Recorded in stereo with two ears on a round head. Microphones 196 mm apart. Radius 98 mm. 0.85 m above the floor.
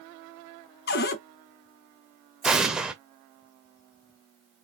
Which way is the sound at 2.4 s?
5° right (ahead or behind).